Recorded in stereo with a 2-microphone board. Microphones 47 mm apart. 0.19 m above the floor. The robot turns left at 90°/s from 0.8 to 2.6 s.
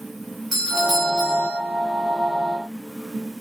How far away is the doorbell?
About 2 m.